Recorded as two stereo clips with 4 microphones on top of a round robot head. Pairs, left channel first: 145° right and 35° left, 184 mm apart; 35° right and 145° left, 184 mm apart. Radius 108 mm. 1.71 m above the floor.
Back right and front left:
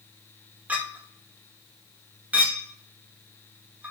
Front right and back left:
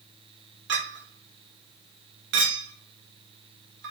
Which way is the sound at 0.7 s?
115° left.